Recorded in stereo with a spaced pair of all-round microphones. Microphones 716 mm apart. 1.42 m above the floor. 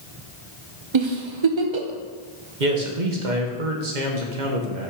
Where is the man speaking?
85° right, 1.4 m.